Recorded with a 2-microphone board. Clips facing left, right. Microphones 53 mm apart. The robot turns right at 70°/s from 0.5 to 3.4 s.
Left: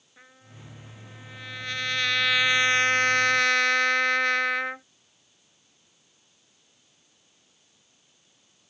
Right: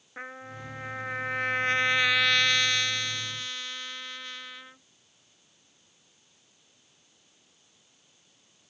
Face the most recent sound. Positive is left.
turn(degrees=80)